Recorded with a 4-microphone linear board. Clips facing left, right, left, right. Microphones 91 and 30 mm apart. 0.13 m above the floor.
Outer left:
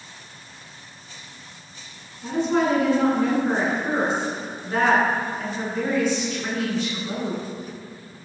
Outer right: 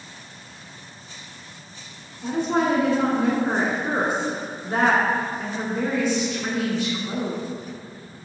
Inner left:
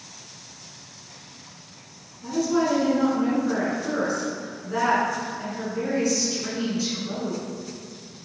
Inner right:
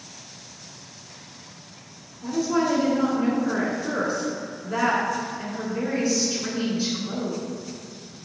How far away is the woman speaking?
About 1.2 m.